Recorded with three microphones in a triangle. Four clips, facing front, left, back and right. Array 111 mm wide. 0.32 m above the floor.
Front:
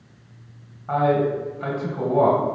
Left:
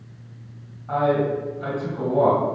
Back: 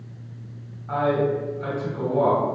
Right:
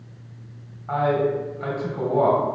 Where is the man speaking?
30° right, 1.7 m.